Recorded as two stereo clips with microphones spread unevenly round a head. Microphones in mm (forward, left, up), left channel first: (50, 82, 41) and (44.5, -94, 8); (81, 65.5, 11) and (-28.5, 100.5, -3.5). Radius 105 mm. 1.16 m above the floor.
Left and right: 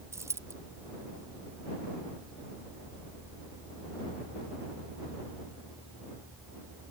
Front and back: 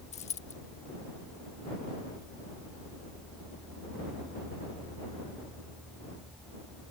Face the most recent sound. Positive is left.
turn(degrees=-15)